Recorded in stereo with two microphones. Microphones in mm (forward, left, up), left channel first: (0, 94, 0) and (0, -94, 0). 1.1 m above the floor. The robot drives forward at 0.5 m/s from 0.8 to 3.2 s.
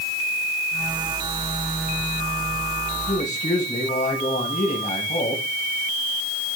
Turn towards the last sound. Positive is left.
turn(degrees=40)  # may be behind; listen again after turning